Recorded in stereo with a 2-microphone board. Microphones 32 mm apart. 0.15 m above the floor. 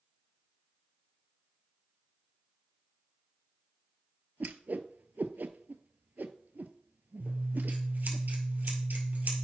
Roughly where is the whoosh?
Right.